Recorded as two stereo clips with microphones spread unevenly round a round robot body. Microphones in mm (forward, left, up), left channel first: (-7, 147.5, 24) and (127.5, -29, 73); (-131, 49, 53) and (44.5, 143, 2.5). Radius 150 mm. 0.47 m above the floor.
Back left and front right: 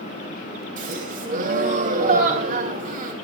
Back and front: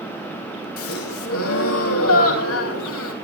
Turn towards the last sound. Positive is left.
turn(degrees=-115)